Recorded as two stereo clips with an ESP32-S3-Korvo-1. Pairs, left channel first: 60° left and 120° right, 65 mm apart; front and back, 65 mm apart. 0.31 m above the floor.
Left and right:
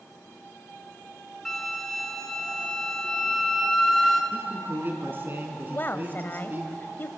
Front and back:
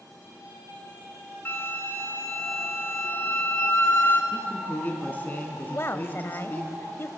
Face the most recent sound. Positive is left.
turn(degrees=20)